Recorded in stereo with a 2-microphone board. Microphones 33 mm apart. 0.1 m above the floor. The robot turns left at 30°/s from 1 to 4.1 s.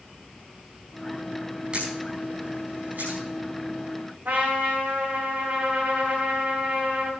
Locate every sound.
1.7 s a camera shutter: 35° right (ahead or behind), 5.5 m; by 3.2 s 80° right, 5.5 m
4.2 s a trumpet: 60° right (ahead or behind), 6.5 m